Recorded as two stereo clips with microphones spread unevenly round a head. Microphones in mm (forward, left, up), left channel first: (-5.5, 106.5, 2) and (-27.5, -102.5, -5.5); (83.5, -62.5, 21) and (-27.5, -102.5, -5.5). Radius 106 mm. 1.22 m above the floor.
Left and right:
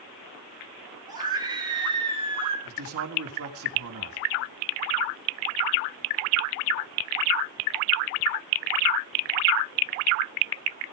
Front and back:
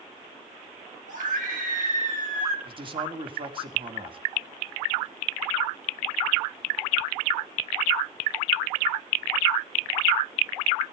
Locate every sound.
1.1 s a scream: 170° right, 5.5 m; by 2.5 s 160° right, 4.5 m
2.6 s a man speaking: 115° right, 3 m